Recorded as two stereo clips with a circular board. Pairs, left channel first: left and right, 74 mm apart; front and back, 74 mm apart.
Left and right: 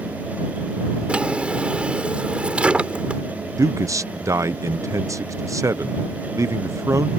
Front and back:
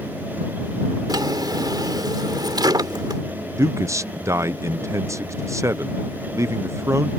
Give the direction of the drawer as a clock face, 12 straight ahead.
5 o'clock.